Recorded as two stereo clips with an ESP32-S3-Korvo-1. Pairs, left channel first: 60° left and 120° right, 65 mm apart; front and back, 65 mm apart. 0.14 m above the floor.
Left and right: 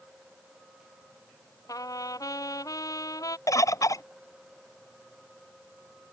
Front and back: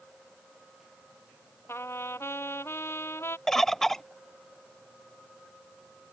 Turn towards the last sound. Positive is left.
turn(degrees=85)